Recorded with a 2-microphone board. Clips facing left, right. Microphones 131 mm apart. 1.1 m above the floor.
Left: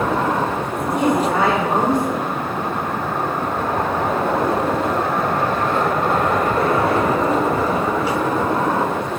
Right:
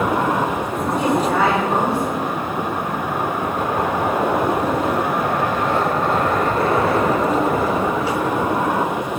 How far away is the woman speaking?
About 4 m.